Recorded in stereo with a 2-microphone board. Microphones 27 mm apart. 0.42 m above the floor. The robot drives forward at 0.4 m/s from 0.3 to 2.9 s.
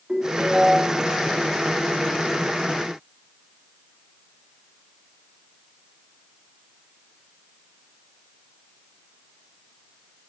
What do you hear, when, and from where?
0.1 s a ringtone: 35° right (ahead or behind), 3 m